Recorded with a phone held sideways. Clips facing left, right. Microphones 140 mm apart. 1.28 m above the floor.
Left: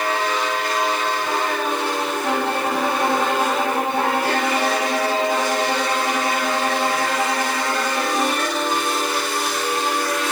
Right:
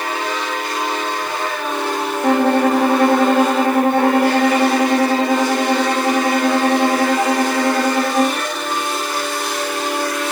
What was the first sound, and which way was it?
A violin, 55° right (ahead or behind).